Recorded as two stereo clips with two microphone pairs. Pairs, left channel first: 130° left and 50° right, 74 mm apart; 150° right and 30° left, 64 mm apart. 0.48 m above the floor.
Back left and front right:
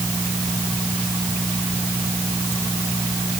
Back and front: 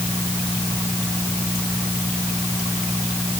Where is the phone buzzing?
No phone buzzing in this recording.